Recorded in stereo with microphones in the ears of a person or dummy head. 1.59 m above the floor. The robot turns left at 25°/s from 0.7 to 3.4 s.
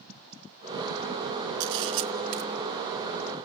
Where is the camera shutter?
65° right (ahead or behind), 1.8 m; by 2.4 s 85° right, 1.8 m.